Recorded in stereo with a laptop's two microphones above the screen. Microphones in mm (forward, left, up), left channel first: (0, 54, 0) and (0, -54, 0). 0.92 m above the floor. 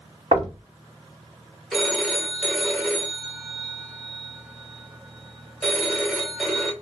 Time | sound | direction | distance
0.3 | knocking | 55° right (ahead or behind) | 0.8 m
1.7 | a phone ringing | centre (ahead or behind) | 0.6 m